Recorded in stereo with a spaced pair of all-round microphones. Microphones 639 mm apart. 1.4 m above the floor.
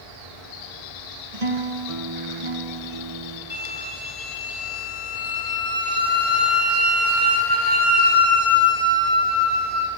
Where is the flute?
15° right (ahead or behind), 3.5 m.